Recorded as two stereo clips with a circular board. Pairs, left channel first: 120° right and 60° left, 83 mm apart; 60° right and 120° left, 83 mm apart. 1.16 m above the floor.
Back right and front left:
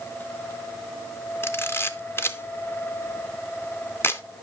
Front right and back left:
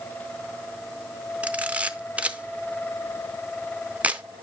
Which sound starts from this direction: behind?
A camera shutter, at 1.4 s.